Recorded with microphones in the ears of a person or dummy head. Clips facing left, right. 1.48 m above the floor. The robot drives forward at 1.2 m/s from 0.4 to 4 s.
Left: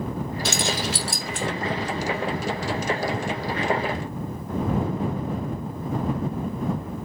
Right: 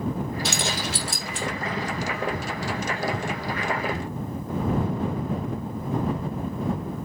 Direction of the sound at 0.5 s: 75° left (ahead or behind).